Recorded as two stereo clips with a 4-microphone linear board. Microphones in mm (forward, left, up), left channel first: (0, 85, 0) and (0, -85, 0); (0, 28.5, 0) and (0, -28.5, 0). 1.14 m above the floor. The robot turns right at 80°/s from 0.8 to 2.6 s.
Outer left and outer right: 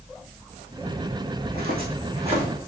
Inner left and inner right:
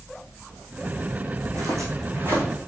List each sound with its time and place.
1.4 s footsteps: 55° right (ahead or behind), 2.5 m; by 2.4 s 25° right (ahead or behind), 3 m